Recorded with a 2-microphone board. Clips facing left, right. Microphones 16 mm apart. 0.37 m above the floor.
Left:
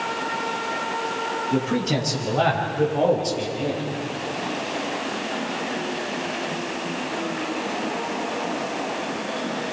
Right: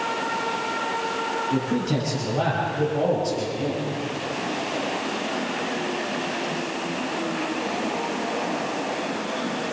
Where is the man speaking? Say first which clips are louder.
Left 3 dB; 45° left (ahead or behind), 7.5 m; by 3.9 s 25° left (ahead or behind), 8 m.